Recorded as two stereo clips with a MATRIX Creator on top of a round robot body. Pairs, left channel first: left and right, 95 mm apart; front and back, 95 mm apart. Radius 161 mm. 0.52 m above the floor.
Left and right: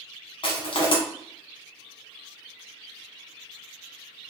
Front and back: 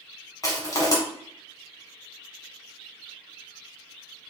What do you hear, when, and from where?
0.4 s crushing: 55° left, 0.9 m